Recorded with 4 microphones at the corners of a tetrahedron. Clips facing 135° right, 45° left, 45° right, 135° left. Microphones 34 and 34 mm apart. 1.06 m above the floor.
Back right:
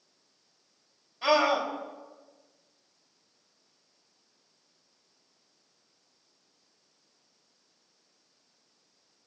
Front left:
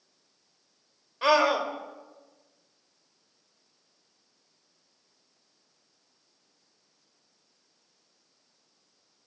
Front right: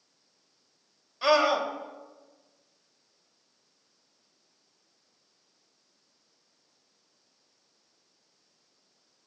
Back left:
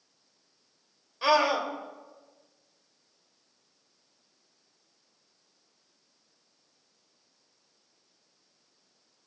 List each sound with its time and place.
1.2 s a scream: 50° left, 3.5 m